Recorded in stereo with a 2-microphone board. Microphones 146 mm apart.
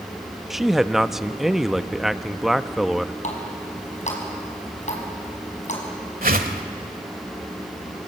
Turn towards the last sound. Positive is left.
turn(degrees=-80)